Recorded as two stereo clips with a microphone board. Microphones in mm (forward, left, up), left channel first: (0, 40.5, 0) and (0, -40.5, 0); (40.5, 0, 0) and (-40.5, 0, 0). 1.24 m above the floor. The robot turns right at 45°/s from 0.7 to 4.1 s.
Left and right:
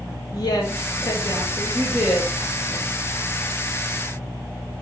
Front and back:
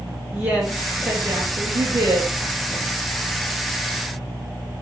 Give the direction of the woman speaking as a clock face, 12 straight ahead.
9 o'clock.